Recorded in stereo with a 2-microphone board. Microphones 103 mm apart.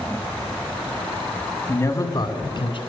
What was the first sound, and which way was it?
A man speaking, 20° left (ahead or behind).